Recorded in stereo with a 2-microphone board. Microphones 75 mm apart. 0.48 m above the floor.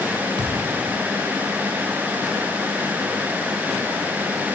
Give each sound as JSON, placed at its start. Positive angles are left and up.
{"t": 0.4, "sound": "a thud", "side_deg": -70, "distance_m": 2.5}